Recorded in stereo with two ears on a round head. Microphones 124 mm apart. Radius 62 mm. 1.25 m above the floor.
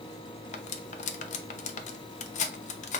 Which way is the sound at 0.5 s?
55° left (ahead or behind).